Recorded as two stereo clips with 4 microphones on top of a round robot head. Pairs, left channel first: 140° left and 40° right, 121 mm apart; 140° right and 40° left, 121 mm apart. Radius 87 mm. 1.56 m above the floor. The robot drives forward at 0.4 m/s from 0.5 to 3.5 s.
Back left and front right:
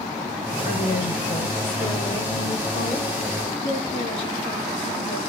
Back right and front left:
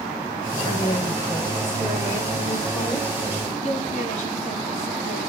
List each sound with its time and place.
0.6 s a woman speaking: 160° left, 7 m; by 3.1 s 165° left, 8 m
3.6 s a woman speaking: 175° right, 4.5 m